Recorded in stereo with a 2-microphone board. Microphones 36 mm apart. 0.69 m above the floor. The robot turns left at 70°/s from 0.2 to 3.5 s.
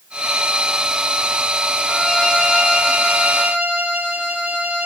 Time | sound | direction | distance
1.9 | a violin | 10° left | 2.5 m